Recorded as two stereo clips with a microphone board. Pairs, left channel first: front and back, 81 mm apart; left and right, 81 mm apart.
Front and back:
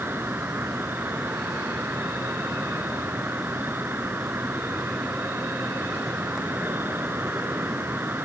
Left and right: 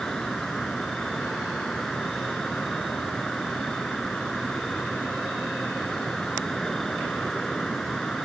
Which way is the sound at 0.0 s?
165° left.